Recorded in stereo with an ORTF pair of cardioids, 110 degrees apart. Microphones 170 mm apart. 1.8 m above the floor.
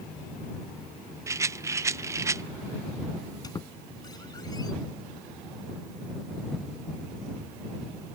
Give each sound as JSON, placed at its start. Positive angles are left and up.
{"t": 1.3, "sound": "a rattle", "azimuth_deg": -20}
{"t": 3.4, "sound": "a squeak", "azimuth_deg": 25}